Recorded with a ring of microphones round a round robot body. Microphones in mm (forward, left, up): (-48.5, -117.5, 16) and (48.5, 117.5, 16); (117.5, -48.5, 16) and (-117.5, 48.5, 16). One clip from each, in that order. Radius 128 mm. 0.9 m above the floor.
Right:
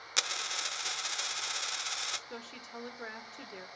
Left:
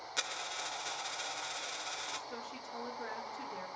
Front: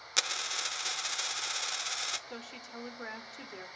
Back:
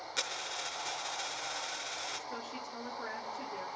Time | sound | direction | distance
0.2 | a dropped coin | 70° right | 0.9 m
2.3 | a woman speaking | 75° right | 2.5 m